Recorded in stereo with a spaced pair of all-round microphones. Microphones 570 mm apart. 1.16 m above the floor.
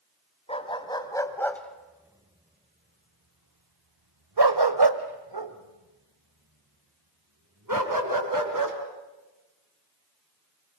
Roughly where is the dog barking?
Centre.